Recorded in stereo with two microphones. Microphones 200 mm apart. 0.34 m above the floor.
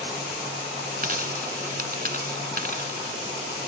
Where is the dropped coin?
50° right (ahead or behind).